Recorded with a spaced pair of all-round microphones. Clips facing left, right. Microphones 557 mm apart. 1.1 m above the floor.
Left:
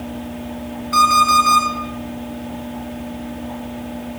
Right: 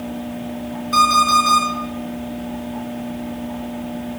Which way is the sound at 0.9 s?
50° right (ahead or behind).